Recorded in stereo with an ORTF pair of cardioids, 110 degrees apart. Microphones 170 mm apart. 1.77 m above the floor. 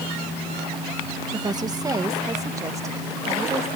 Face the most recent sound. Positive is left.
turn(degrees=-20)